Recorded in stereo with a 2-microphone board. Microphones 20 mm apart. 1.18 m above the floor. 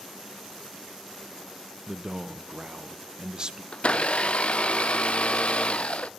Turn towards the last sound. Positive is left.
turn(degrees=60)  # may be behind; listen again after turning